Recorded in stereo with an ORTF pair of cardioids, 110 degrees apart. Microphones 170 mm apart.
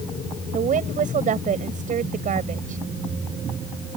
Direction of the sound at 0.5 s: 50° right.